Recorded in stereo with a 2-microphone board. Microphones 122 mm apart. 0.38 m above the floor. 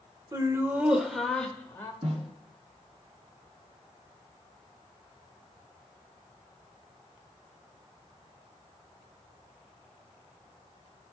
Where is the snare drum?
55° right (ahead or behind), 3.5 m.